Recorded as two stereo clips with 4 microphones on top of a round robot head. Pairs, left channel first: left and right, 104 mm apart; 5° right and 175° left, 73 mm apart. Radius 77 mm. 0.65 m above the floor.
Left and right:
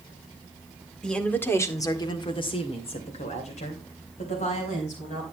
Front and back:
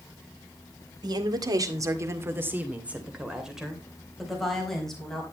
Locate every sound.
1.0 s a woman speaking: 170° left, 2 m; by 5.2 s 80° left, 4.5 m